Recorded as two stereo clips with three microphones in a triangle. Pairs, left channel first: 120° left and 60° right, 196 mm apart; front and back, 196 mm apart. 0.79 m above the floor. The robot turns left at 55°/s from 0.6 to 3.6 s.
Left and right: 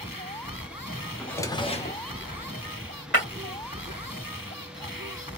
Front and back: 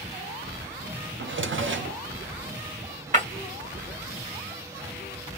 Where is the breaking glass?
135° left, 1.5 m; by 3.2 s 125° left, 1.5 m.